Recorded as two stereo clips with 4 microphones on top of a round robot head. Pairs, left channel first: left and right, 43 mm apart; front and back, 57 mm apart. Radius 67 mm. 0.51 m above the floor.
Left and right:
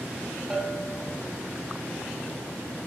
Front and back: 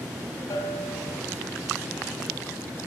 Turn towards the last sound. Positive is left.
turn(degrees=-25)